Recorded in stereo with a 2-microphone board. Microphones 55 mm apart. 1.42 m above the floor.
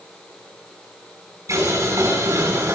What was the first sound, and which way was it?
Boiling, 85° right.